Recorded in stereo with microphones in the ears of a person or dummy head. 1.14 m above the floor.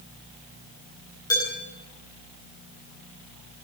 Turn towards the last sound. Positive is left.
turn(degrees=15)  # may be behind; listen again after turning